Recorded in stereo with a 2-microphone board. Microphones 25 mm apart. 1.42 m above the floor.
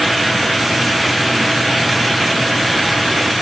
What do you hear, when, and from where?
Only background noise.